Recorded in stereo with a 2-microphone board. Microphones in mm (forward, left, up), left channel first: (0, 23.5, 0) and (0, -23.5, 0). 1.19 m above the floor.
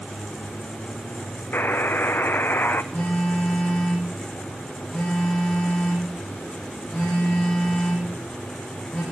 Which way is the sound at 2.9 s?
10° left (ahead or behind).